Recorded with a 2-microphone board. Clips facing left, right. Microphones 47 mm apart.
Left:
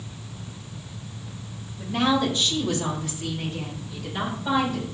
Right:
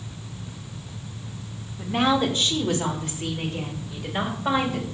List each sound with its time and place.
1.8 s a woman speaking: 40° right (ahead or behind), 1.4 m; by 4.8 s 60° right (ahead or behind), 3 m